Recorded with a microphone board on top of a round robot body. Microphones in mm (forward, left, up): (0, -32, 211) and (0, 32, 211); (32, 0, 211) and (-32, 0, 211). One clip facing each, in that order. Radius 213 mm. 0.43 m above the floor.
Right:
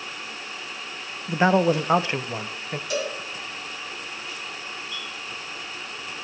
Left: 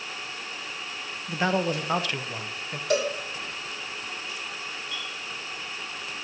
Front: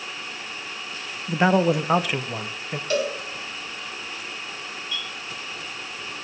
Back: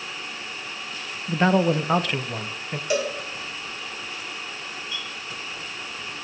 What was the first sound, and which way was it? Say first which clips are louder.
A man speaking: right 6 dB, front 1 dB; 70° right.